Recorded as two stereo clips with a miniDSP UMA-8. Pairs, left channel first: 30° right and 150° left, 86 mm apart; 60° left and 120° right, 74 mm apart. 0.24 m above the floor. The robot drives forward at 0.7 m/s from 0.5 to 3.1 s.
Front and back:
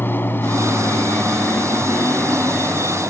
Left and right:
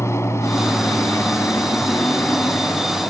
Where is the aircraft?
25° left; by 3.1 s 30° left.